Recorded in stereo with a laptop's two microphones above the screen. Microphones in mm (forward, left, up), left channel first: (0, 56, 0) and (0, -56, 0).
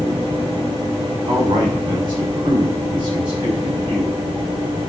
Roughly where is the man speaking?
Right.